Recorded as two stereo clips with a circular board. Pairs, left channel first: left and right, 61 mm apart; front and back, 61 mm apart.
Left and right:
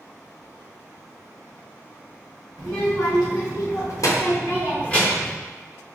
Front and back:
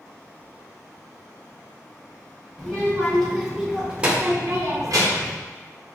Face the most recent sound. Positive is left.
turn(degrees=175)